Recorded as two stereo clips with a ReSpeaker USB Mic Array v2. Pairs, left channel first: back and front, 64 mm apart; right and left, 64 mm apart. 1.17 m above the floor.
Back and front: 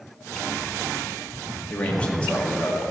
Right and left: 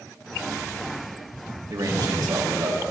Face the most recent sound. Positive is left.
turn(degrees=110)